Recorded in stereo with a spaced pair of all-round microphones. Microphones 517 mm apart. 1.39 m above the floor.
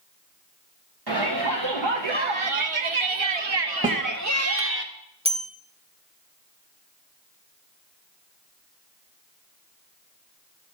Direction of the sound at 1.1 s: 45° right (ahead or behind).